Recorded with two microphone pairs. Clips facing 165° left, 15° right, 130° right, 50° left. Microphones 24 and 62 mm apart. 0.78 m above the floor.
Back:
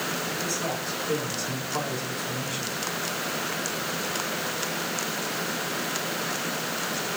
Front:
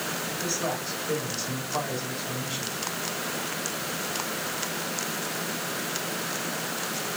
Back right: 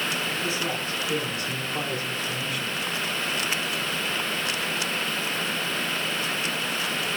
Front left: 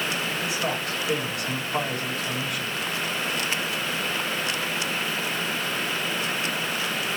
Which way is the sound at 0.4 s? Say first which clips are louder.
Even, front left 1 dB; 50° left.